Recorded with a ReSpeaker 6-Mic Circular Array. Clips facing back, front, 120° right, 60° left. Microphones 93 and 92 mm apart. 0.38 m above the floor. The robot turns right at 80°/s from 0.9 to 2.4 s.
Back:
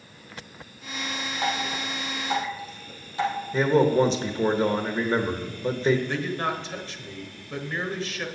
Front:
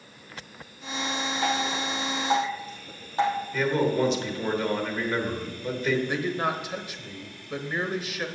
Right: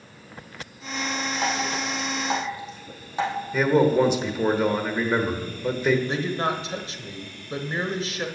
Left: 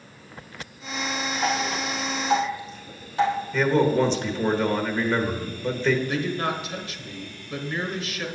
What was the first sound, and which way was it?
Dripping, 135° right.